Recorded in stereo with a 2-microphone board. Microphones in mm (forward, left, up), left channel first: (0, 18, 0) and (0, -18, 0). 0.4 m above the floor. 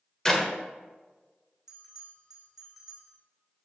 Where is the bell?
10° right (ahead or behind), 3.5 m.